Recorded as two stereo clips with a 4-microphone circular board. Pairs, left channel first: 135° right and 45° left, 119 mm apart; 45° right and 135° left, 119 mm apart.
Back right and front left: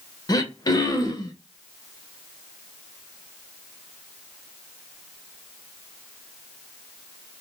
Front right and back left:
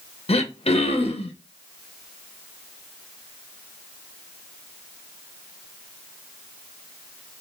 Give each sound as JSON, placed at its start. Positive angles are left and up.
{"t": 0.3, "sound": "throat clearing", "azimuth_deg": -80, "distance_m": 0.5}